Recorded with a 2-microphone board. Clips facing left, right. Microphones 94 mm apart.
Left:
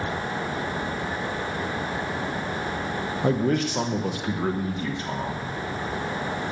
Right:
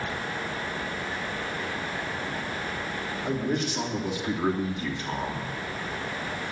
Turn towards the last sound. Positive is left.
turn(degrees=35)  # may be behind; listen again after turning